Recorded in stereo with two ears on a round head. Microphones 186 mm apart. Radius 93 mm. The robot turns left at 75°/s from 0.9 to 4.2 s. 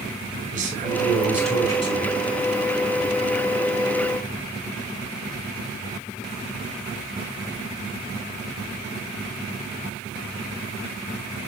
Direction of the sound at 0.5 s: 140° right.